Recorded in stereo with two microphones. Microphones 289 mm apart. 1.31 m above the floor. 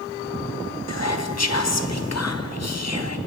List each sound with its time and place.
0.9 s whispering: 60° left (ahead or behind), 0.7 m